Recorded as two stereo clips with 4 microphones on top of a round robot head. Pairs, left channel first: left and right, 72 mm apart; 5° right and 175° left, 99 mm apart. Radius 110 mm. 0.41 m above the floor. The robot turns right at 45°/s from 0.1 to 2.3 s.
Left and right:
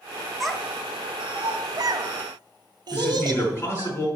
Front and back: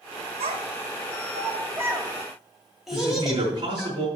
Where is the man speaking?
150° left, 5 m.